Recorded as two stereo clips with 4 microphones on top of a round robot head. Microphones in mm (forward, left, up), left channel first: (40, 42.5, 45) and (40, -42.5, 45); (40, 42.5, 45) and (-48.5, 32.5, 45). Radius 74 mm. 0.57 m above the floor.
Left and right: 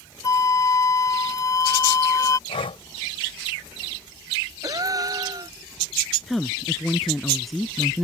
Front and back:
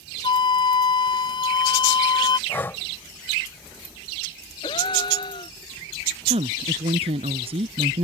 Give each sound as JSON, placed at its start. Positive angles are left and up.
{"t": 0.2, "sound": "a flute", "azimuth_deg": 40}
{"t": 2.5, "sound": "breathing", "azimuth_deg": 70}
{"t": 4.6, "sound": "a gasp", "azimuth_deg": -45}
{"t": 6.3, "sound": "a woman speaking", "azimuth_deg": 180}